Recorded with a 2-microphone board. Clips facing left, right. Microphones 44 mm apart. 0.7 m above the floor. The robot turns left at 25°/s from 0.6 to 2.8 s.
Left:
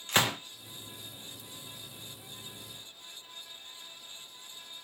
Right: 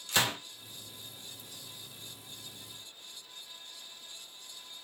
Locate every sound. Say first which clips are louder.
0.1 s a gunshot: left 2 dB; 40° left (ahead or behind), 0.7 m